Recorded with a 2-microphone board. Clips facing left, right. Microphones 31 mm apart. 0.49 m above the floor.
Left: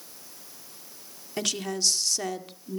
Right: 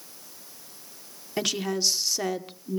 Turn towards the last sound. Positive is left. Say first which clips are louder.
# right 2 dB
turn(degrees=-10)  # may be behind; listen again after turning